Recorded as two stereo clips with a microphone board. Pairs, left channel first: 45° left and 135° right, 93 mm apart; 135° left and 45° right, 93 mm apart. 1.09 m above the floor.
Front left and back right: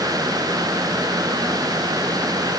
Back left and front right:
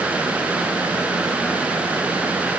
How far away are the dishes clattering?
No dishes clattering in this recording.